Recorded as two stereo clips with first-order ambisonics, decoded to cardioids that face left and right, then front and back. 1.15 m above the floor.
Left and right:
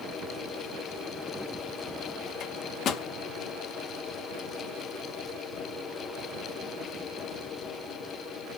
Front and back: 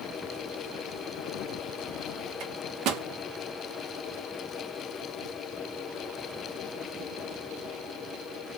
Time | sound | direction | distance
2.4 | a microwave | 140° left | 0.6 m